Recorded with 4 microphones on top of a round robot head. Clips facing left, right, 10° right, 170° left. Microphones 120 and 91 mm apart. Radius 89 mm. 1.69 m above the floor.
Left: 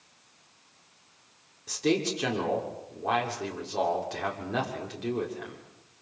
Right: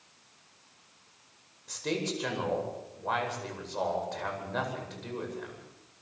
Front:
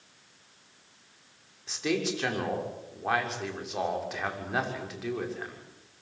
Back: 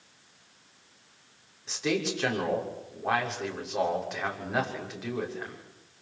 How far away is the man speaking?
About 6.5 m.